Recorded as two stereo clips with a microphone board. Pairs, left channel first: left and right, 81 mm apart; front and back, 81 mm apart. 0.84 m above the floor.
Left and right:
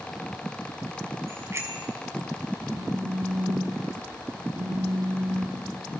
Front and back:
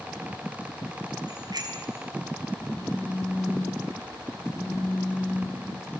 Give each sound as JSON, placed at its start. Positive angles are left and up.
{"t": 1.3, "sound": "a bicycle bell", "azimuth_deg": -145, "distance_m": 5.5}
{"t": 2.7, "sound": "a phone buzzing", "azimuth_deg": -90, "distance_m": 7.5}